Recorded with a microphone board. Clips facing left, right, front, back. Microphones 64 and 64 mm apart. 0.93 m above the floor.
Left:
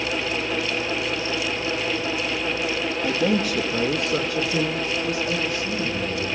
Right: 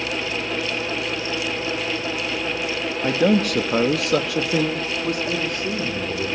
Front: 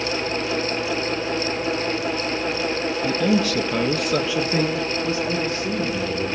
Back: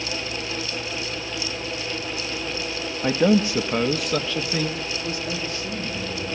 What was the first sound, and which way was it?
A man speaking, 135° right.